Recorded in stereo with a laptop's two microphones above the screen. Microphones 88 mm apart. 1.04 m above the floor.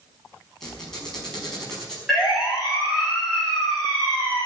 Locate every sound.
0.6 s a squeak: 5° left (ahead or behind), 5 m
2.1 s a siren: 5° right (ahead or behind), 5.5 m; by 4.5 s 15° left (ahead or behind), 6.5 m